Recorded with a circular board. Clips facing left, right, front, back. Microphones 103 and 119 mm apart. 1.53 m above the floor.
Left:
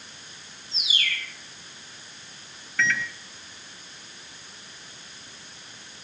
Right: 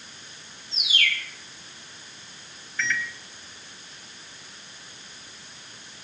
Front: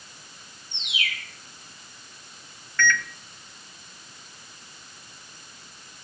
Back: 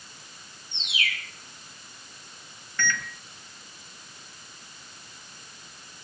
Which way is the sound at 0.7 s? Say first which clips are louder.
Right 3 dB, back 1 dB; 70° right.